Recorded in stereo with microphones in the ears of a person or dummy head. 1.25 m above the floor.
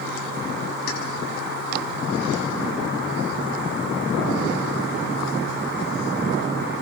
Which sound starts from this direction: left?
Keys jangling, at 0.9 s.